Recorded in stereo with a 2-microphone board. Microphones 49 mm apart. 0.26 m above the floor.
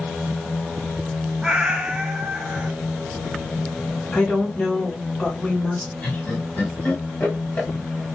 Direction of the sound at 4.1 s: 20° left (ahead or behind).